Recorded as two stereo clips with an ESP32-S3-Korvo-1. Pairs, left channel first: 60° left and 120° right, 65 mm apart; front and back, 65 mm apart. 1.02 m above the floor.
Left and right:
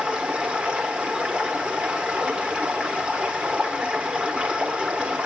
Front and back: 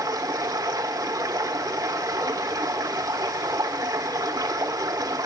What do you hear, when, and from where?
0.0 s running water: 165° left, 1.5 m